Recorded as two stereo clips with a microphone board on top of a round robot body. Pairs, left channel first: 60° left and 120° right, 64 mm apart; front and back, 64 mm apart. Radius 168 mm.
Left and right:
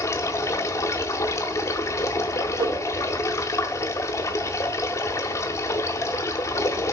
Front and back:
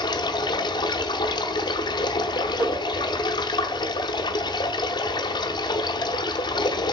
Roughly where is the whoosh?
Right.